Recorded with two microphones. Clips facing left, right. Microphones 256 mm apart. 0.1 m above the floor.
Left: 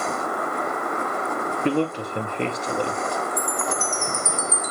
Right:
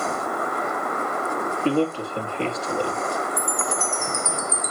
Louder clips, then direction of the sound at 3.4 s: Left 1 dB; 10° right (ahead or behind).